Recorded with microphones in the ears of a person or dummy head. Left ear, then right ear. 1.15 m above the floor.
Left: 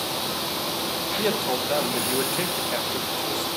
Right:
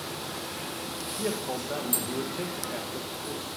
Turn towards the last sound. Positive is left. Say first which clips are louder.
# left 6 dB
turn(degrees=70)  # may be behind; listen again after turning